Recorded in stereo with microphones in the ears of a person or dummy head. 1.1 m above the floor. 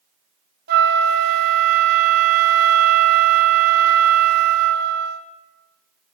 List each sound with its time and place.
0.7 s a flute: 50° right (ahead or behind), 1.1 m